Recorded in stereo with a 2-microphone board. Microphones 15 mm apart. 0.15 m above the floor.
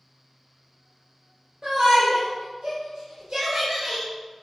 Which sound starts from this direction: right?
A shout, at 1.6 s.